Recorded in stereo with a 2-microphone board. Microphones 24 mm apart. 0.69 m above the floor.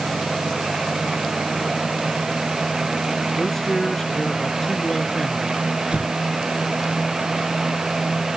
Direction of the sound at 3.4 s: 15° left (ahead or behind).